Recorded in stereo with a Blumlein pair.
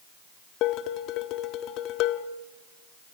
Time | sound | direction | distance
0.6 | dishes clattering | 40° left | 1.3 m